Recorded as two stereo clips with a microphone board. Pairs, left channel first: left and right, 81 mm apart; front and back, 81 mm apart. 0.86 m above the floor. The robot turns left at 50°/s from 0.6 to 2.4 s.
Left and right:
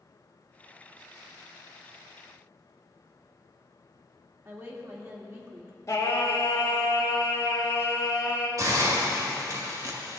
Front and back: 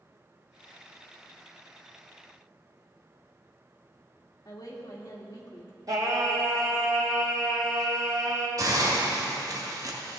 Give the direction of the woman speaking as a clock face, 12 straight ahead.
1 o'clock.